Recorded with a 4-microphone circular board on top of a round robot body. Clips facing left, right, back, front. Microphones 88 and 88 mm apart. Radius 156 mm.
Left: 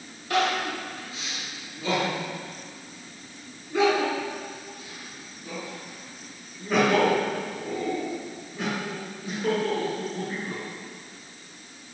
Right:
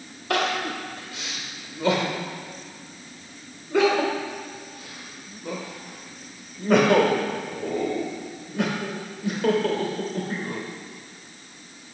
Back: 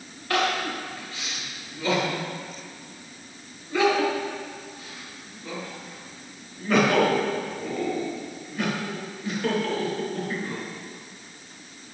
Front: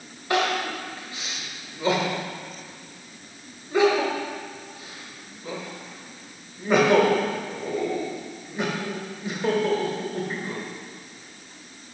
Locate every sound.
0.3 s crying: 70° right, 1.4 m